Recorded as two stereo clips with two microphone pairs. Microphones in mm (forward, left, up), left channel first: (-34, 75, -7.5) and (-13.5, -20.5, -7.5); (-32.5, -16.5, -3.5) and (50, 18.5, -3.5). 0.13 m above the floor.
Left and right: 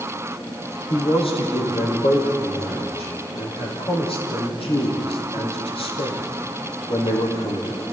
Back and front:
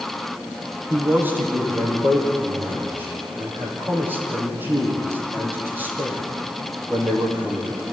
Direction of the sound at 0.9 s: 90° left.